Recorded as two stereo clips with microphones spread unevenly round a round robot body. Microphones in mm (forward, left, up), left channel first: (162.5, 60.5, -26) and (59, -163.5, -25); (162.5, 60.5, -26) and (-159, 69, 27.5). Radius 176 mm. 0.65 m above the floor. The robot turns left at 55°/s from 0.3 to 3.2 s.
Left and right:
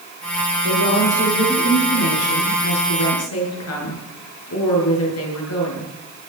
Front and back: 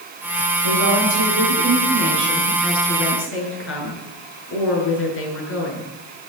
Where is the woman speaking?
170° right, 7.5 m; by 5.9 s 50° left, 7.5 m.